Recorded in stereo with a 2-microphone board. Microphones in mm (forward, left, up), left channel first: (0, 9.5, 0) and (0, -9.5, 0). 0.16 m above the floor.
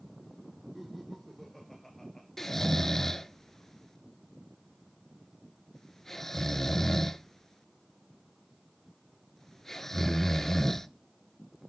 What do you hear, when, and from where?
0.8 s laughter: 5° right (ahead or behind), 2 m; by 2.3 s 25° left (ahead or behind), 2.5 m
2.4 s snoring: 15° left (ahead or behind), 0.8 m